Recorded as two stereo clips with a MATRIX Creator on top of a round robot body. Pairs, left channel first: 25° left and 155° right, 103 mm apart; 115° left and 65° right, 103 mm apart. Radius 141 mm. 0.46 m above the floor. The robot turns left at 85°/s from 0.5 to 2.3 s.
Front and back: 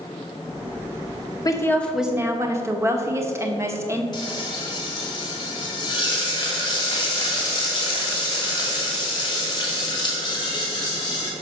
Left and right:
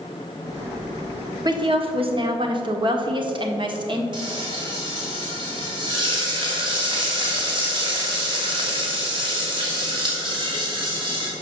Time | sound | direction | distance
1.4 | a woman speaking | 25° right | 1.6 m
4.1 | frying | 25° right | 2.5 m